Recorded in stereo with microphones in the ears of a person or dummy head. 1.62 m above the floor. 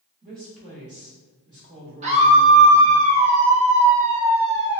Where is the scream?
35° right (ahead or behind), 0.6 m.